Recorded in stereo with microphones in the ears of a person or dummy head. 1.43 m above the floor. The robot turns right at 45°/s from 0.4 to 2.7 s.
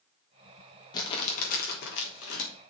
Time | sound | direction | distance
0.9 | crumpling | 25° left | 3.5 m